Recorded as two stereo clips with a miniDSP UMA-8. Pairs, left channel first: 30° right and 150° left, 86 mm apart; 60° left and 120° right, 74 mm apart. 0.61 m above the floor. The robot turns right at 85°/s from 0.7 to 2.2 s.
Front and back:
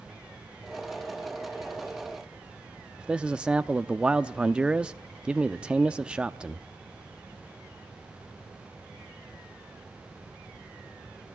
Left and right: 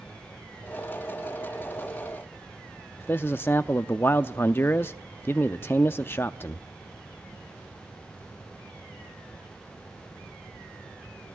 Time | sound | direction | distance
3.0 | a man speaking | 85° left | 0.7 m